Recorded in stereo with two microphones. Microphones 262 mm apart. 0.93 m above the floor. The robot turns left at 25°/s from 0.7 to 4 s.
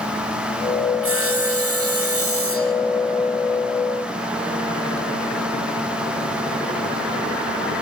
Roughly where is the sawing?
Right.